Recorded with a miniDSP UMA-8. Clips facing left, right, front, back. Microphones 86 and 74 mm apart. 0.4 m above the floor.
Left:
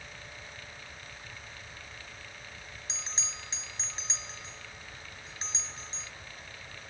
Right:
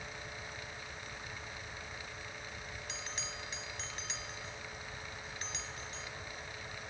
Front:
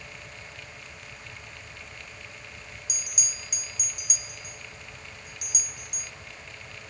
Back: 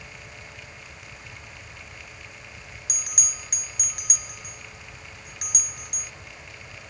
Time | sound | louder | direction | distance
2.9 | a bell | left 2 dB, back 2 dB | 155° left | ?